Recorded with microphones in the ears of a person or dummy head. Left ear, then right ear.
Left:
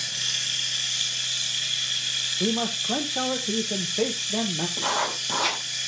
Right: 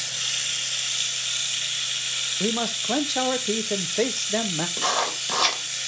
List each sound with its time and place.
0.0 s running water: 25° right (ahead or behind), 1.3 m
2.4 s a man speaking: 70° right (ahead or behind), 0.8 m
4.8 s writing: 60° right (ahead or behind), 3 m